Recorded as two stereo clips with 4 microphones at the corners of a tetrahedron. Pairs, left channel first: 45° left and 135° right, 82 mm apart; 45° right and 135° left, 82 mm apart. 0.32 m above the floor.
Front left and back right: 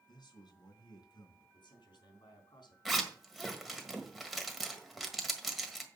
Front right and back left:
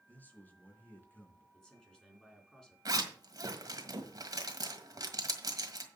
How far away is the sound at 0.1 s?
About 3 m.